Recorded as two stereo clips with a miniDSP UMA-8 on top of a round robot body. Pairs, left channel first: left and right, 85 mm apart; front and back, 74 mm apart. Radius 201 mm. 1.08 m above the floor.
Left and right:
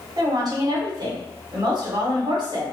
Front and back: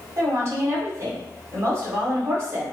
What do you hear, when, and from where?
0.2 s a woman speaking: 130° right, 1.5 m